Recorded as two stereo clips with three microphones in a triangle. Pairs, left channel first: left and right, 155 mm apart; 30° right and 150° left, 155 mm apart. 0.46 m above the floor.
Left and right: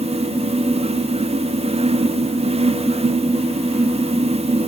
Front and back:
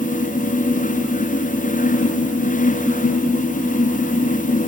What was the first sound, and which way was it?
Only background noise.